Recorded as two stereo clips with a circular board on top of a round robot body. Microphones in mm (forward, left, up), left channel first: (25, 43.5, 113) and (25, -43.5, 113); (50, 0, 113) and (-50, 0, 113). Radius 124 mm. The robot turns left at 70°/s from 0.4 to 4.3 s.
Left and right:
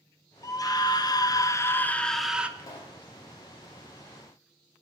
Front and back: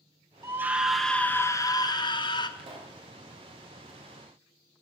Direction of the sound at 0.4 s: 125° left.